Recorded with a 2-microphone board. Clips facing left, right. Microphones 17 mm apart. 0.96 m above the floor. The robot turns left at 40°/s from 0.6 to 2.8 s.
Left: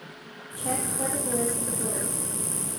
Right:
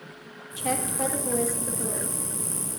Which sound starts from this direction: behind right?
A woman speaking, at 0.6 s.